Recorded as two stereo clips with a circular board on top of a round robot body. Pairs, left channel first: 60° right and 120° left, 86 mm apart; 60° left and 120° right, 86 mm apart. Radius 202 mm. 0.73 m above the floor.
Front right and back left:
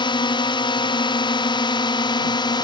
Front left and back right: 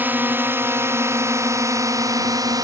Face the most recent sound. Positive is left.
turn(degrees=-80)